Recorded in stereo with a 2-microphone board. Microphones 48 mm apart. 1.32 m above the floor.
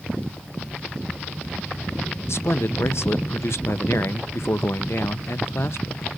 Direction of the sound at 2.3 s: 65° left (ahead or behind).